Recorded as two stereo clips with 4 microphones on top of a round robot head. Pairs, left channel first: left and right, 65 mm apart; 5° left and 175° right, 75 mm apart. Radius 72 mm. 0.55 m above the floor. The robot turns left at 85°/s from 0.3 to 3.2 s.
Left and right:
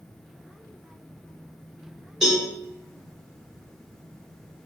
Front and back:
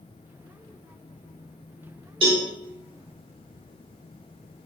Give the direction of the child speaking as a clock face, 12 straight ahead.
No child speaking in this recording.